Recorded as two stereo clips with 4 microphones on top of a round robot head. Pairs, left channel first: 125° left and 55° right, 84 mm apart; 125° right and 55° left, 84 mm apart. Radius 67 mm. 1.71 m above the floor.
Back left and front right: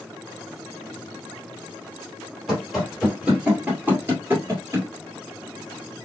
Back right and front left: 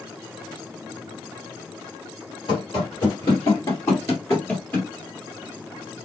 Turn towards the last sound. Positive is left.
turn(degrees=-50)